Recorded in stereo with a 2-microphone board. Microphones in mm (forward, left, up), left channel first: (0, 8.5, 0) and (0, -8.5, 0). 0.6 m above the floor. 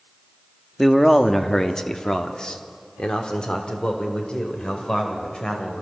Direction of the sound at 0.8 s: 5° left (ahead or behind).